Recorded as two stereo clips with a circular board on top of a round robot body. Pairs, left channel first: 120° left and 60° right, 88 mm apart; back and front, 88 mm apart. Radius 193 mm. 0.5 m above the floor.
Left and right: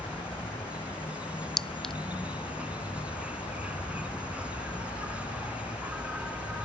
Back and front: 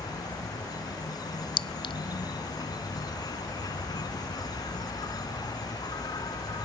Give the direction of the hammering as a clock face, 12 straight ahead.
I don't hear hammering.